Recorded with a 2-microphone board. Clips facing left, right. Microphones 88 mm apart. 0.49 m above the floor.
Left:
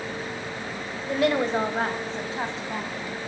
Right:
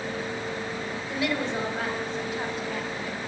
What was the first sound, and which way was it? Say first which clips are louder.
A woman speaking: left 7 dB; 55° left (ahead or behind).